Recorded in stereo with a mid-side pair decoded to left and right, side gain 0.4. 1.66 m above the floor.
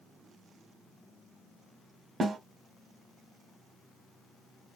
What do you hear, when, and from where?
2.2 s a snare drum: 55° right, 1.1 m